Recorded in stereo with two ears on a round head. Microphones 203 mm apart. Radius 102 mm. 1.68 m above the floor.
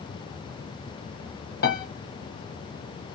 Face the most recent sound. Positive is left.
turn(degrees=45)  # may be behind; listen again after turning